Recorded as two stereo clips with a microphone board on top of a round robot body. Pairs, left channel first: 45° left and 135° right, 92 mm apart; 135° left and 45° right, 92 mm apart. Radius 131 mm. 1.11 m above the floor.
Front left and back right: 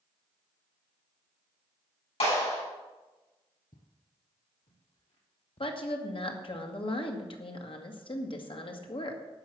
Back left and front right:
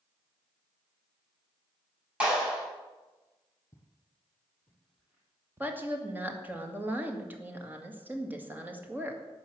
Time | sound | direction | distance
2.2 | a clap | 30° left | 8 m
3.7 | footsteps | 70° left | 3.5 m
5.6 | a woman speaking | 25° left | 2 m